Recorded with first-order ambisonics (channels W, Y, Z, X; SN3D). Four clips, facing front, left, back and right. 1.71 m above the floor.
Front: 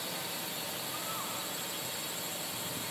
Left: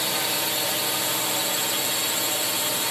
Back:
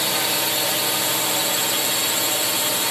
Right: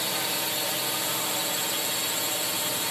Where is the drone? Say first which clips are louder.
Left 3 dB, back 17 dB; 165° left.